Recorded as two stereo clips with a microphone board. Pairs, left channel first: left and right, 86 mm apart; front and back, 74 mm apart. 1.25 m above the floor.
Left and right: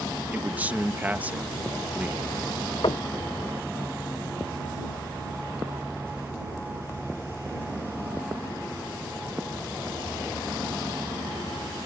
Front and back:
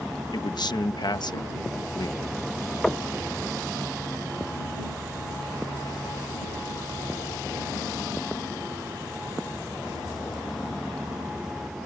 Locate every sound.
0.3 s a man speaking: 20° right
2.8 s knocking: 85° left